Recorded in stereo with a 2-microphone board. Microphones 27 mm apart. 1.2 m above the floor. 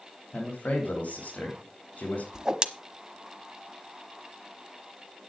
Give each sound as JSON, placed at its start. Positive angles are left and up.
{"t": 0.3, "sound": "a man speaking", "side_deg": 75, "distance_m": 3.0}
{"t": 2.3, "sound": "a whoosh", "side_deg": -25, "distance_m": 1.1}